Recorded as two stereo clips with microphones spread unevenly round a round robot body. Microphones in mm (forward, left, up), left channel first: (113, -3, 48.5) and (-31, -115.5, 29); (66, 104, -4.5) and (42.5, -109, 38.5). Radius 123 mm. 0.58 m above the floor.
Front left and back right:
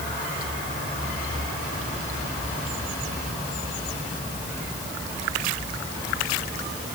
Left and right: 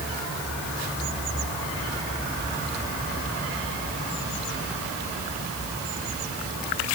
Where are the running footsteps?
I don't hear running footsteps.